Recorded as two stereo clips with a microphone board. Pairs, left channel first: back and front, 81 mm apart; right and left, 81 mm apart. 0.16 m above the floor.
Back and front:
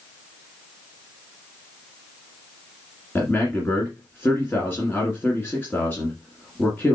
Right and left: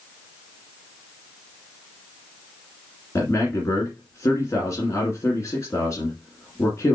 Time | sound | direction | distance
3.1 | a man speaking | 125° right | 2.0 m